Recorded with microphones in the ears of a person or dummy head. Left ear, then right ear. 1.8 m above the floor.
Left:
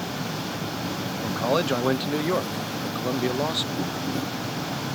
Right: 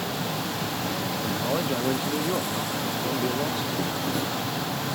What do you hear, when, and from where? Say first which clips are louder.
0.0 s an insect: right 2 dB; 20° right (ahead or behind)
1.2 s a man speaking: left 5 dB; 35° left (ahead or behind)